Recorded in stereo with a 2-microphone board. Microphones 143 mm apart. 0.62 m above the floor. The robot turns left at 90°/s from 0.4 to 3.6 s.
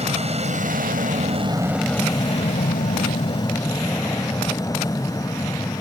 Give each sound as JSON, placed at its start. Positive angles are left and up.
{"t": 0.0, "sound": "an aircraft", "azimuth_deg": -50}